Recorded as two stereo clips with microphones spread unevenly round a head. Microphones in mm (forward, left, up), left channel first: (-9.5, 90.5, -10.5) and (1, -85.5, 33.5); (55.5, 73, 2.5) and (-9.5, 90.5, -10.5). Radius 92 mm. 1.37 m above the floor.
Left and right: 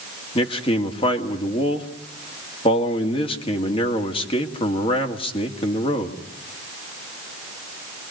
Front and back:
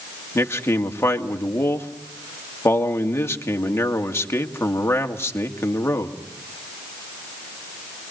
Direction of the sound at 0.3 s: 30° left.